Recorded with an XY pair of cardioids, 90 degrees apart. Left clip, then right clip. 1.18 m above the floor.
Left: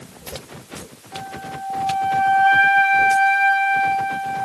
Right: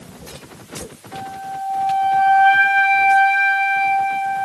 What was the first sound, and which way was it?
A flute, 25° right.